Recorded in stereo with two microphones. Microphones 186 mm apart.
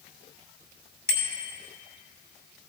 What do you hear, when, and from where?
1.1 s a bicycle bell: 80° right, 5 m